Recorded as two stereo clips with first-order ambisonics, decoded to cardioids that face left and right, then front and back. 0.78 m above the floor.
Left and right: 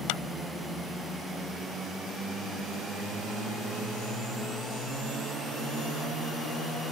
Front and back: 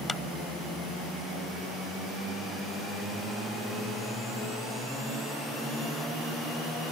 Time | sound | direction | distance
0.1 | a clap | 80° left | ?